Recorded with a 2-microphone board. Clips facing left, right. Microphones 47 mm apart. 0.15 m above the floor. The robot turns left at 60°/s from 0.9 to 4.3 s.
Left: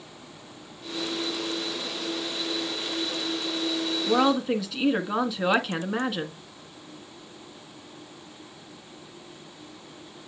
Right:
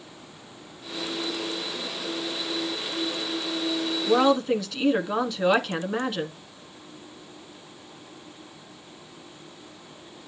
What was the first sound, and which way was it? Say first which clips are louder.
A woman speaking: right 2 dB; 5° right (ahead or behind).